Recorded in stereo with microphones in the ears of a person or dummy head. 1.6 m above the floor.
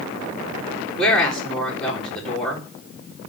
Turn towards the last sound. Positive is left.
turn(degrees=0)  # may be behind; listen again after turning